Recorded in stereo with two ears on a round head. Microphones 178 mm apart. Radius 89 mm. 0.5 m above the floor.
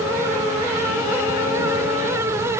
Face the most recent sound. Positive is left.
No sound to turn to.